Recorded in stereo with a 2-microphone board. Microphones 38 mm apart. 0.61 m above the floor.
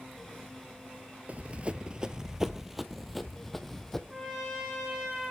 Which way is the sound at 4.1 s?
15° right (ahead or behind).